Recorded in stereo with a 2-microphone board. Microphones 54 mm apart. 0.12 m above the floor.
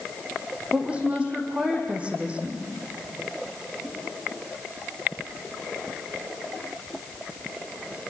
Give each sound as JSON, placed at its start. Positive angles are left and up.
{"t": 0.7, "sound": "a woman speaking", "side_deg": -20, "distance_m": 5.0}